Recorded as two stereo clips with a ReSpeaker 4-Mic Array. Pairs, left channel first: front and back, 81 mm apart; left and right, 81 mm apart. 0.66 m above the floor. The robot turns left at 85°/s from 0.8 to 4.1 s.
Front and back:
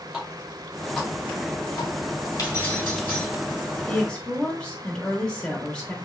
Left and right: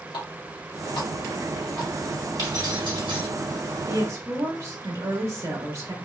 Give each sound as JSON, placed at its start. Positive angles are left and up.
{"t": 0.1, "sound": "a running tap", "azimuth_deg": 95, "distance_m": 2.0}
{"t": 2.4, "sound": "keys jangling", "azimuth_deg": -45, "distance_m": 2.5}
{"t": 3.9, "sound": "a woman speaking", "azimuth_deg": -50, "distance_m": 1.3}